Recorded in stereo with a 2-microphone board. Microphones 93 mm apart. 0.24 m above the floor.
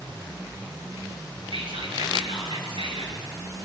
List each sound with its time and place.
1.5 s whispering: 70° right (ahead or behind), 4.5 m